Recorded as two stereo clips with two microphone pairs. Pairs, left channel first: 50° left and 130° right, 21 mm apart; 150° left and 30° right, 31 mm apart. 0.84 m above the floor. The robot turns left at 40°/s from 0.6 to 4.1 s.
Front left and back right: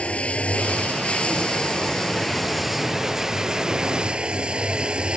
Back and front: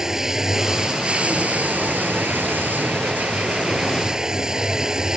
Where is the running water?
45° left; by 5.2 s 95° right.